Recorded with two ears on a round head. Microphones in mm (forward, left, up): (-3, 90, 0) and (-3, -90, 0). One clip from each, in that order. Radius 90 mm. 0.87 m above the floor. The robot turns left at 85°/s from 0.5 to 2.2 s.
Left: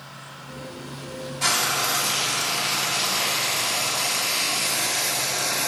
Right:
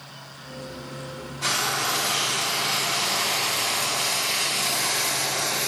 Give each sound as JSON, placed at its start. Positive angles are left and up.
{"t": 1.4, "sound": "frying", "azimuth_deg": 105, "distance_m": 1.8}